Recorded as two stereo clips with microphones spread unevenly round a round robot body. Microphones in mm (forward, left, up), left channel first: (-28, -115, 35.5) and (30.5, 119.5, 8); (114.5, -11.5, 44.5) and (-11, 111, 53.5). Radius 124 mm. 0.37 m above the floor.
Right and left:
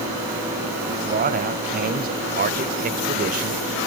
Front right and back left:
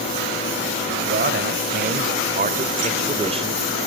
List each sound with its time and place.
0.9 s a man speaking: 125° left, 2 m; by 3.6 s 85° left, 1.3 m